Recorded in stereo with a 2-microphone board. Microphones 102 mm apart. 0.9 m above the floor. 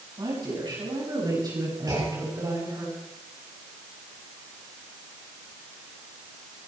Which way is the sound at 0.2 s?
45° right (ahead or behind).